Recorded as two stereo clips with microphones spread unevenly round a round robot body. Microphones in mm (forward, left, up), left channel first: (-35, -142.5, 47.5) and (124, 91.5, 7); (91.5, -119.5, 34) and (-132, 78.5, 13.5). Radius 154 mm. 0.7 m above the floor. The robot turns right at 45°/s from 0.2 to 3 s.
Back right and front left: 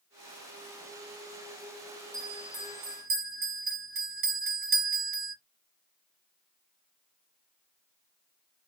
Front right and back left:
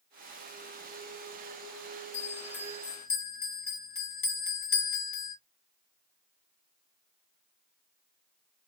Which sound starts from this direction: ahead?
A bell, at 2.1 s.